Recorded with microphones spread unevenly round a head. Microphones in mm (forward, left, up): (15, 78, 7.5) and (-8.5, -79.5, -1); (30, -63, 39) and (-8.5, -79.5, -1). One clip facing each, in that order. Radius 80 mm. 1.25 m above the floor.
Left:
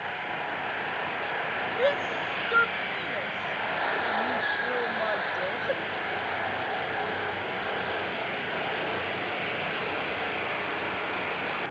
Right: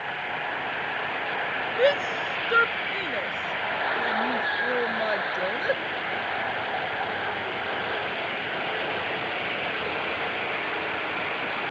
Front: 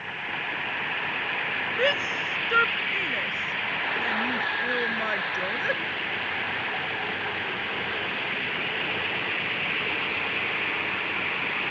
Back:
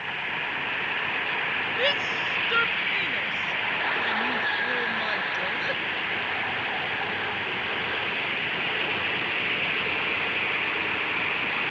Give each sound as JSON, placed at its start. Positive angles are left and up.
{"t": 1.8, "sound": "a shout", "azimuth_deg": -35}